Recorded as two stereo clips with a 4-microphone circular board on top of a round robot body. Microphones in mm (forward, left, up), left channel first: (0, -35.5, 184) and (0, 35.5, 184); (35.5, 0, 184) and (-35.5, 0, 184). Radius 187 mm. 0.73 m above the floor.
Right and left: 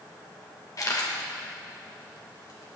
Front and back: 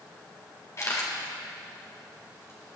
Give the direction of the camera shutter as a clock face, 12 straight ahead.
2 o'clock.